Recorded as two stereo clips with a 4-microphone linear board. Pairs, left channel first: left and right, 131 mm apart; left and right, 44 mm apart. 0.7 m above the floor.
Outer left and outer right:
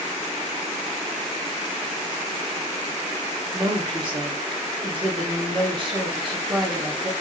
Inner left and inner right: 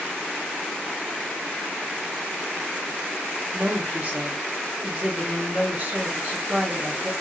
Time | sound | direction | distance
3.5 | a woman speaking | 40° right (ahead or behind) | 1.0 m